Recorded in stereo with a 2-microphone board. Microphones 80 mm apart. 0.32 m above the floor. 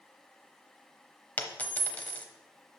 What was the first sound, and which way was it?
A dropped coin, 20° left (ahead or behind).